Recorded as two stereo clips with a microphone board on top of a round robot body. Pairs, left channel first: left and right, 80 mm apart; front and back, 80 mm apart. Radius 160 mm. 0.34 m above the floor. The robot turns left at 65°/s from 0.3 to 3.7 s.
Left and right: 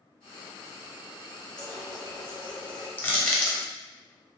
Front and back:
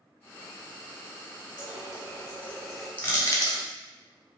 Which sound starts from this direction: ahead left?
Crushing, at 3.0 s.